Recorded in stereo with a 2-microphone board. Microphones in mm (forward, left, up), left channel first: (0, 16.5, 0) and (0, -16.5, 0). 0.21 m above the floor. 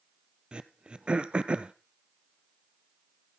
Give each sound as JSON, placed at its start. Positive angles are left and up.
{"t": 0.5, "sound": "throat clearing", "side_deg": -30, "distance_m": 0.8}